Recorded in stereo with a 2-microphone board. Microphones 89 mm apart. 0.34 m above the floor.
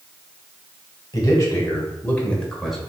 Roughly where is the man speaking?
Left.